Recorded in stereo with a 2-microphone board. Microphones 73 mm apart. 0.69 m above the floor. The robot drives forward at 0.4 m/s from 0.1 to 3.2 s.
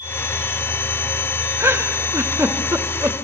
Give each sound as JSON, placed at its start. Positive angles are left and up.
{"t": 1.6, "sound": "a giggle", "side_deg": -35, "distance_m": 1.2}